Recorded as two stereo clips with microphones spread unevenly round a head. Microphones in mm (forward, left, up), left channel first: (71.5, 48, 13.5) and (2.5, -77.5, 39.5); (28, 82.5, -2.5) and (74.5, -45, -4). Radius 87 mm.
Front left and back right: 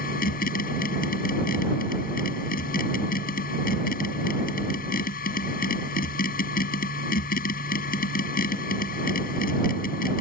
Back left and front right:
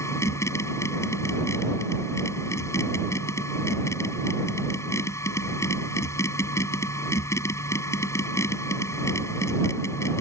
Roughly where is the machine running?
Ahead left.